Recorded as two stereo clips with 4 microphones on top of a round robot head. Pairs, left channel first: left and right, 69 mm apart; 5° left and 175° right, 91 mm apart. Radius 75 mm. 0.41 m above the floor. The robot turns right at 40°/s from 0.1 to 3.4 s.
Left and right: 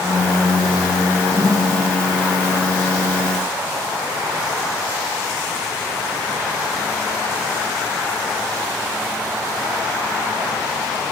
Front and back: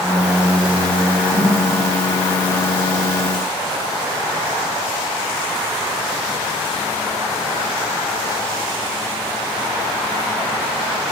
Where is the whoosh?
130° right, 1.8 m; by 1.6 s 115° right, 1.8 m.